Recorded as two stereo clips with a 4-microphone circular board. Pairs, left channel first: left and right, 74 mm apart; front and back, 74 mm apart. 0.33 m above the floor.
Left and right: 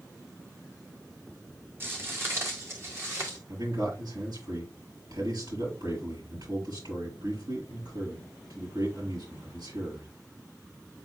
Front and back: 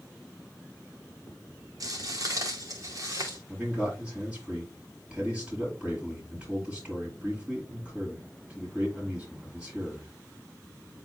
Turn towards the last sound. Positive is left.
turn(degrees=-105)